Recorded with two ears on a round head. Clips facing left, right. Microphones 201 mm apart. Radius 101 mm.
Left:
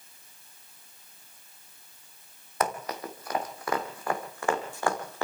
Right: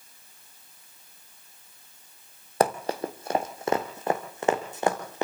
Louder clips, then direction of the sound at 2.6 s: Right 6 dB; 30° right (ahead or behind).